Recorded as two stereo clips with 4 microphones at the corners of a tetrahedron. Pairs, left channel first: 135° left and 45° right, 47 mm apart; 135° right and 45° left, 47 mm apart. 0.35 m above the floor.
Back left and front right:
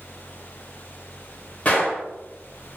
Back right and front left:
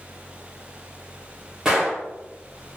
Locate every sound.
1.6 s a gunshot: 105° left, 1.2 m